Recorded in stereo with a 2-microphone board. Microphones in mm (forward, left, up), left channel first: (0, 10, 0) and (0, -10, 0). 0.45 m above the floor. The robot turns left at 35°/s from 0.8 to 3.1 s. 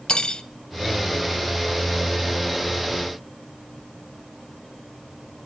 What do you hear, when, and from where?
0.1 s cutlery clinking: 45° left (ahead or behind), 0.7 m